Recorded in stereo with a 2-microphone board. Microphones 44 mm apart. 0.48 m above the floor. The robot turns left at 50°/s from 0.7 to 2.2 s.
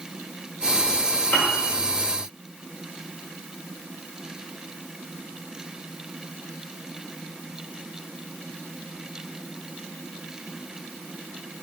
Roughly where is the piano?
Left.